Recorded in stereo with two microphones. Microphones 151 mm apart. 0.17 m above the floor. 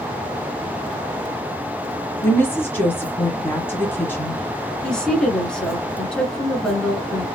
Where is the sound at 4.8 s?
5° left (ahead or behind), 1.5 m.